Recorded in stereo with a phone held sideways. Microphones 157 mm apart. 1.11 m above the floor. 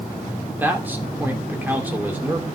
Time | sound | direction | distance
0.6 | a man speaking | 10° right (ahead or behind) | 3 m